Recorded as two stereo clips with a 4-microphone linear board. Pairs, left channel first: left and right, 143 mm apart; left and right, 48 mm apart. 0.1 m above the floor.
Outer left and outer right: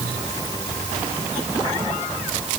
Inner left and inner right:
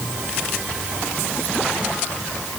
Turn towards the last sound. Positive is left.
No sound to turn to.